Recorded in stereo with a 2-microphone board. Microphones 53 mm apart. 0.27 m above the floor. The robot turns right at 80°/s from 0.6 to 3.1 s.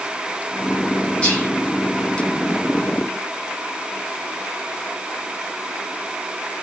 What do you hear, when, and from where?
1.2 s whispering: 25° left (ahead or behind), 1.6 m